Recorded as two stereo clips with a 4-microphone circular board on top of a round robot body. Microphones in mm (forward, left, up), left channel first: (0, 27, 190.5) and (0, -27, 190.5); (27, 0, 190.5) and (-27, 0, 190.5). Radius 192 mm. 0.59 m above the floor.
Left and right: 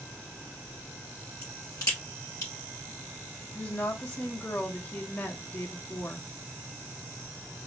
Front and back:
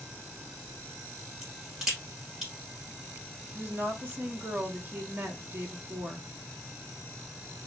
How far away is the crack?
About 0.8 m.